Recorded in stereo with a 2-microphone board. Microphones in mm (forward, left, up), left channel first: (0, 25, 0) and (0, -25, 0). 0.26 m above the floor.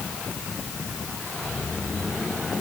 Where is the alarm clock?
I don't hear an alarm clock.